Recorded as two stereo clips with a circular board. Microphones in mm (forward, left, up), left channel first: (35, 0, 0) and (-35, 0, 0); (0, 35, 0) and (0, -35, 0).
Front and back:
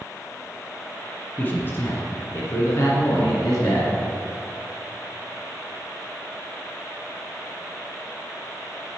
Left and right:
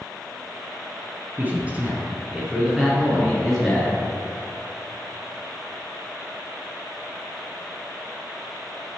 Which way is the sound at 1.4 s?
45° right.